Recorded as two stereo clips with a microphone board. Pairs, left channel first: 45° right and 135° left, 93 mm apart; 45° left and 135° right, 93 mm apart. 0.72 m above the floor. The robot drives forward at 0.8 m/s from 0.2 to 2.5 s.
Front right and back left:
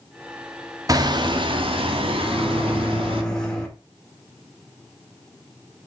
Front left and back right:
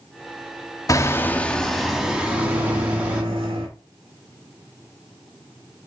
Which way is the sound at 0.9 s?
90° left.